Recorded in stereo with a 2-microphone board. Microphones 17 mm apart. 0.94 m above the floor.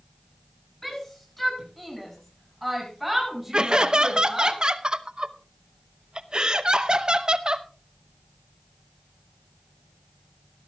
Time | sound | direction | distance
0.8 | a shout | 10° left (ahead or behind) | 8 m
3.5 | laughter | 45° right (ahead or behind) | 0.8 m